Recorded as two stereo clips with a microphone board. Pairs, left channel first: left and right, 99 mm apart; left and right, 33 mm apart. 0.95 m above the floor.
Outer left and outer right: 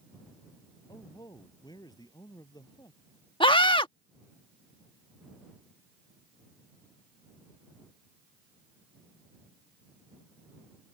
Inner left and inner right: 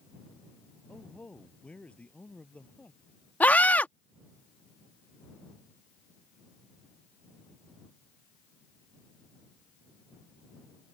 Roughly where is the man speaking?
Left.